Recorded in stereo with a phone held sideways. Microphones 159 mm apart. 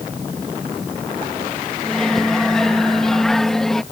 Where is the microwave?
5° left (ahead or behind).